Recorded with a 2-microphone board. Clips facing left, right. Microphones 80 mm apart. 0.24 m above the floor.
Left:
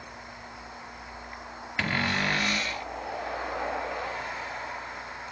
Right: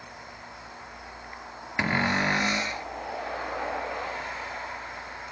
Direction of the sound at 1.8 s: 20° right (ahead or behind).